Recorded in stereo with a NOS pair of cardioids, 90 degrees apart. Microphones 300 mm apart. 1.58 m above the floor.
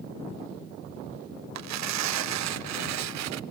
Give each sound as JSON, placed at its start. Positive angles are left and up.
{"t": 1.6, "sound": "tearing paper", "azimuth_deg": -70, "distance_m": 0.6}